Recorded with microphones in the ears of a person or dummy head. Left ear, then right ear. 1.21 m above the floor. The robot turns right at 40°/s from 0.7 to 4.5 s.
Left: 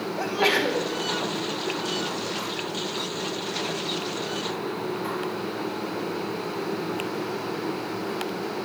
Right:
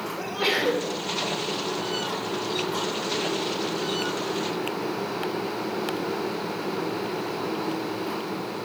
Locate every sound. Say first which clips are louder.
0.2 s a sneeze: left 3 dB; 10° left (ahead or behind), 3.5 m; by 0.9 s 5° left (ahead or behind), 3.5 m